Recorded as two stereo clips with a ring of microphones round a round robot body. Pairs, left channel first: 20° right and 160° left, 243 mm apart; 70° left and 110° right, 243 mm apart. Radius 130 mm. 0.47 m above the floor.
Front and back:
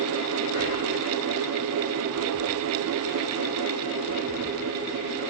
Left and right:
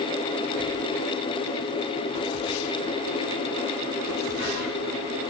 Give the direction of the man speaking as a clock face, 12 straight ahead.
I don't hear a man speaking.